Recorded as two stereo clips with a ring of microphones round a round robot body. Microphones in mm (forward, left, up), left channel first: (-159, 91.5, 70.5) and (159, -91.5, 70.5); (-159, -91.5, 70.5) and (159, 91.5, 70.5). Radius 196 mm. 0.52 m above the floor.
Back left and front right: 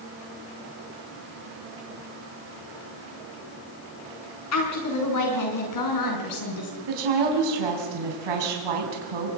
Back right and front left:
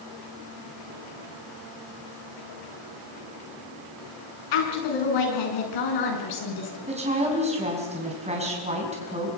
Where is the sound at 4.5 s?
160° right, 6 m; by 6.8 s straight behind, 6 m.